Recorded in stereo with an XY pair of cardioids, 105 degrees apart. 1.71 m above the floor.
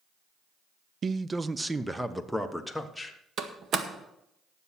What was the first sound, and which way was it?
A man speaking, 45° right.